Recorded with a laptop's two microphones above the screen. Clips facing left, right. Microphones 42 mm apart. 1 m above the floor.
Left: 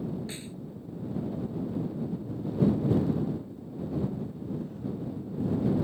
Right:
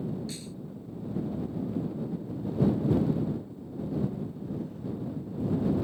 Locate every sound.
0.3 s a snare drum: 30° left (ahead or behind)